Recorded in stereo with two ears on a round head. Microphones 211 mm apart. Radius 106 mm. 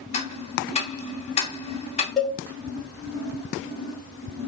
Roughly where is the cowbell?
Centre.